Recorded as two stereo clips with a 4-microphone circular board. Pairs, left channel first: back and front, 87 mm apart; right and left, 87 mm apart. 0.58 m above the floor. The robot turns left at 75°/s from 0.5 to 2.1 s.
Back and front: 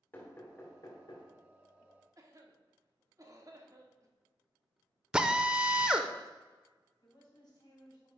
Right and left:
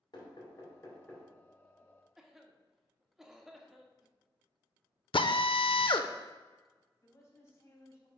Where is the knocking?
115° right, 2.5 m; by 1.3 s 175° right, 2.5 m.